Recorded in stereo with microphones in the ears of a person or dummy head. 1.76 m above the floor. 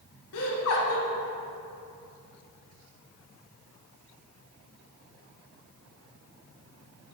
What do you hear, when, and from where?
0.3 s laughter: 75° left (ahead or behind), 1.7 m